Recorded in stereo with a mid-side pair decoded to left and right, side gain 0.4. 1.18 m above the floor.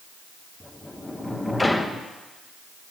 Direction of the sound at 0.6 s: 10° left.